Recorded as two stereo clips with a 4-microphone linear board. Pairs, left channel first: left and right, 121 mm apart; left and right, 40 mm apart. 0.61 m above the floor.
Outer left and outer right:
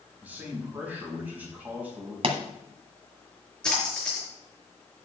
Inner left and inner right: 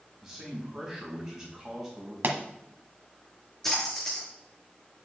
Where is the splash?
5° left (ahead or behind), 5.5 m.